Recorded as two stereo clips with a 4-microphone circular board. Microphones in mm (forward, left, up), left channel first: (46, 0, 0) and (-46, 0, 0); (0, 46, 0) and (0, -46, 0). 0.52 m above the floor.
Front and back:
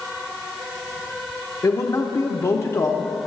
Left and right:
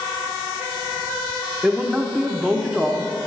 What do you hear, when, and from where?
1.6 s a man speaking: 10° right, 0.7 m